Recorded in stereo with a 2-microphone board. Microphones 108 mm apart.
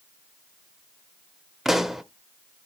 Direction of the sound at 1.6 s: Centre (ahead or behind).